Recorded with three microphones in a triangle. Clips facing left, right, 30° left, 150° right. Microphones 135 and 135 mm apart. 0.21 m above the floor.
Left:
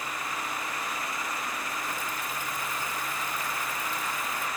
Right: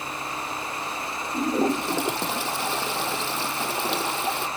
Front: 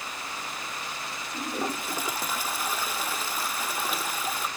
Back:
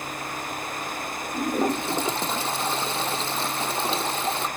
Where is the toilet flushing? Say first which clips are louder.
Right 12 dB, back 8 dB; 85° right.